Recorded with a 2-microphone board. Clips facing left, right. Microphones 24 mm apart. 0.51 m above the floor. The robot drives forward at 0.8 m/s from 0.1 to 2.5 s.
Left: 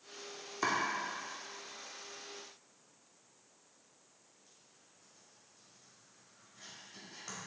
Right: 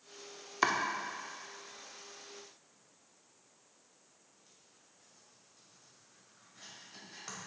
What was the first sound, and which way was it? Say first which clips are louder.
Chopping: right 2 dB; 40° right (ahead or behind).